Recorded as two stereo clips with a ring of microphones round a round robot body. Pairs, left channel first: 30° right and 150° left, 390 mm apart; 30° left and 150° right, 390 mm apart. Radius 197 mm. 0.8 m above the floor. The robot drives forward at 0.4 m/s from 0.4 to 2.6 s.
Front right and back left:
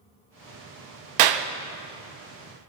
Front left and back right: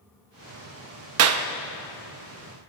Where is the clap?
165° left, 0.7 m.